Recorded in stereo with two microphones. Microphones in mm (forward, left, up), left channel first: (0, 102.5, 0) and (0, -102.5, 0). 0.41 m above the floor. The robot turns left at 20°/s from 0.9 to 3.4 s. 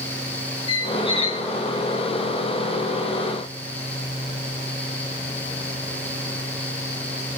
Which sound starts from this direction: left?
A squeak, at 0.7 s.